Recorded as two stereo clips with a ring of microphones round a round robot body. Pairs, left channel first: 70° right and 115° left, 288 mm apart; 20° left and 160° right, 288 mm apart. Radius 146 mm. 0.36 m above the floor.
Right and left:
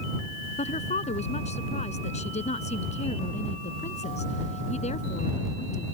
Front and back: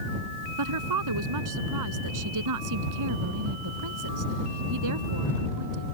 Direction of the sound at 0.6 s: 135° right.